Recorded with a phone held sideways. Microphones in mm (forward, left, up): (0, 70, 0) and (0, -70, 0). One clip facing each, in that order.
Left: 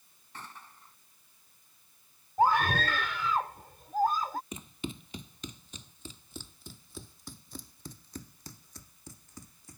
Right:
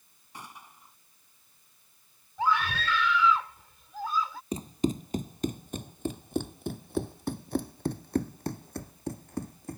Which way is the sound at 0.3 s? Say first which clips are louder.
Right 1 dB; 10° right (ahead or behind).